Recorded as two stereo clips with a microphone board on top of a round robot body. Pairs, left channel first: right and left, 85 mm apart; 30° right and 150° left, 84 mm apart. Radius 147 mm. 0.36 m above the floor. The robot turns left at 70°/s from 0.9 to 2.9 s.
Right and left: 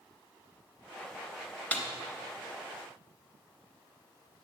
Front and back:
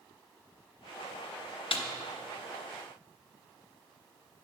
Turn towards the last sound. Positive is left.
turn(degrees=-100)